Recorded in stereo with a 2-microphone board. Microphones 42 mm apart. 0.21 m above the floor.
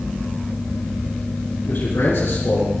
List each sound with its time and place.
1.7 s a man speaking: 75° left (ahead or behind), 4 m; by 2.7 s 65° left (ahead or behind), 3.5 m